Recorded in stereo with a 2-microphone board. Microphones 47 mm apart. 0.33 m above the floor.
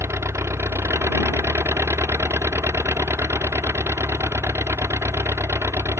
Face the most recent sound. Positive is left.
turn(degrees=-75)  # may be behind; listen again after turning